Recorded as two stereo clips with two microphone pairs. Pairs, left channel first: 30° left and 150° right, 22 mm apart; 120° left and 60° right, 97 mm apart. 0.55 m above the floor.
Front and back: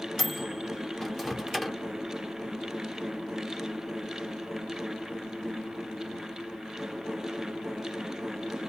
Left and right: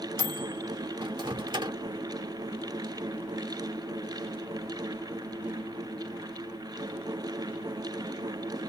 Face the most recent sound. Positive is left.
turn(degrees=-60)